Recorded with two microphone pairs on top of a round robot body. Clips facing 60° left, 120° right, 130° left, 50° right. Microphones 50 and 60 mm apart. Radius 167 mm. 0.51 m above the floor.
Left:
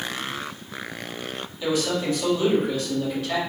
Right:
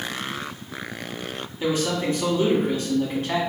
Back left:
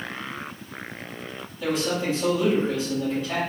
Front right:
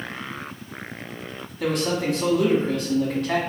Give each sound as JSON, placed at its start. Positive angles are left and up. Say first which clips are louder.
{"t": 1.6, "sound": "a man speaking", "louder": "even, front right 2 dB", "azimuth_deg": -65, "distance_m": 1.6}